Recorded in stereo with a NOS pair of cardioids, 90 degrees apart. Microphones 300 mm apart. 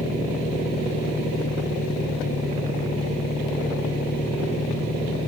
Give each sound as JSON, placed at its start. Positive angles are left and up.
{"t": 0.0, "sound": "an engine running", "azimuth_deg": 30}